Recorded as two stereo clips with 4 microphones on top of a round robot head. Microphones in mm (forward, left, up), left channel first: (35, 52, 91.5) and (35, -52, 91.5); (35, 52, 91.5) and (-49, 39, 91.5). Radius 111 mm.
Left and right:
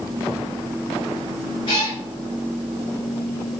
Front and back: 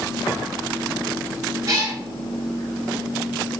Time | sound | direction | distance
1.7 | a cat meowing | 140° left | 1.0 m